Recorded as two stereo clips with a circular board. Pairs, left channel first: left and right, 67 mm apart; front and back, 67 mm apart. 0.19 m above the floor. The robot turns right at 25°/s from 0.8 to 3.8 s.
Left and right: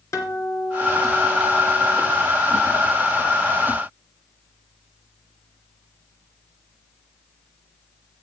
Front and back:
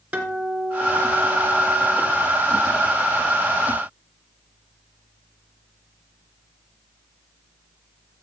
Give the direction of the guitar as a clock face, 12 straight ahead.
8 o'clock.